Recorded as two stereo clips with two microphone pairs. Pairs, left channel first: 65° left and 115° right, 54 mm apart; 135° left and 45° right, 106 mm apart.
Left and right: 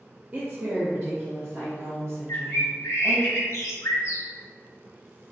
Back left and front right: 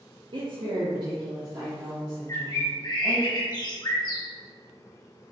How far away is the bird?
About 0.8 m.